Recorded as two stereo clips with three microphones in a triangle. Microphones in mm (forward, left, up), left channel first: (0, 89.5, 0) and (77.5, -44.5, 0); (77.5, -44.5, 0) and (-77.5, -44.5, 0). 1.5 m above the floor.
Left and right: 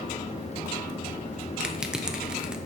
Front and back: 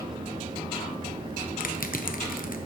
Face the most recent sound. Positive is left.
turn(degrees=25)